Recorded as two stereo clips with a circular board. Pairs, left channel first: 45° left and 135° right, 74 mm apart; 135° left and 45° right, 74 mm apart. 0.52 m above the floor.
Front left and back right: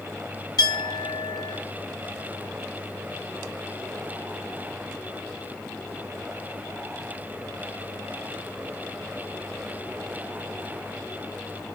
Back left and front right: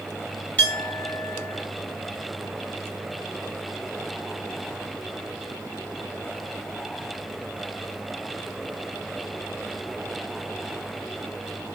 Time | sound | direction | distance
0.6 | a clink | 70° left | 1.2 m